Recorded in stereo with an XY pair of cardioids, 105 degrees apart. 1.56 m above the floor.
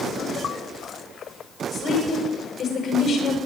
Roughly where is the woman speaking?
Ahead left.